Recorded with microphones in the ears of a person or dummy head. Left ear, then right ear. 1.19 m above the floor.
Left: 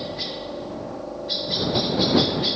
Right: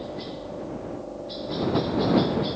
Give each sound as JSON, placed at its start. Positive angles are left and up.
{"t": 0.0, "sound": "a helicopter", "side_deg": 55}